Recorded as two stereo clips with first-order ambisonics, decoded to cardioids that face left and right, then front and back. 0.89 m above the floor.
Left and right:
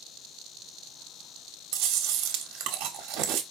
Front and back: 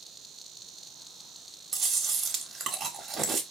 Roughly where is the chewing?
Behind right.